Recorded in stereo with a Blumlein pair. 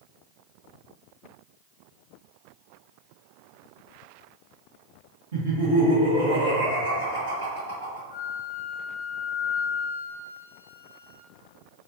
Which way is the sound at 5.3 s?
55° right.